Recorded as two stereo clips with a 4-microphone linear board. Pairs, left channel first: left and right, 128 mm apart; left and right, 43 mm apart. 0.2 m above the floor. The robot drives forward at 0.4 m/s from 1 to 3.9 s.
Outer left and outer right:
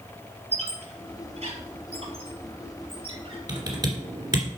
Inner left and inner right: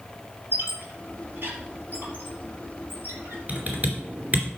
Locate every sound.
0.5 s a squeak: 55° right (ahead or behind), 3 m; by 3.4 s 45° right (ahead or behind), 3.5 m
3.5 s typing on a keyboard: 30° right (ahead or behind), 2.5 m; by 4.5 s 35° right (ahead or behind), 2.5 m